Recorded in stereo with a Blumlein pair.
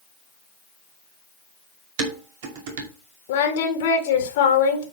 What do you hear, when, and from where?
2.0 s dishes clattering: 50° right, 2.5 m
3.3 s singing: 55° left, 2.0 m